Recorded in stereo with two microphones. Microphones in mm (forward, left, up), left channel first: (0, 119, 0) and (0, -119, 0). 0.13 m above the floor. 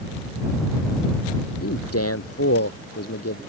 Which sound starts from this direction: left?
A man speaking, at 1.6 s.